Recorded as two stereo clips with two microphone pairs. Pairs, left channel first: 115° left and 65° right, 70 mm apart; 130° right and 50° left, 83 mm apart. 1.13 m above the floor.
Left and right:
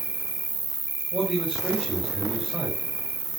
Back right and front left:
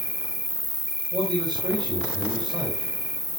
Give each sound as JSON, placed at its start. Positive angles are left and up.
{"t": 0.0, "sound": "an insect", "azimuth_deg": -10, "distance_m": 1.2}
{"t": 1.1, "sound": "a man speaking", "azimuth_deg": 5, "distance_m": 6.5}